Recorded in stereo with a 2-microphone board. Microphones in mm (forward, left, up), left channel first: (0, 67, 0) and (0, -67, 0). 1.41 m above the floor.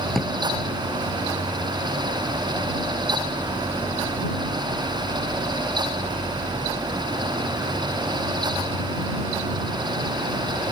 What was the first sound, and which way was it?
A drawer, centre (ahead or behind).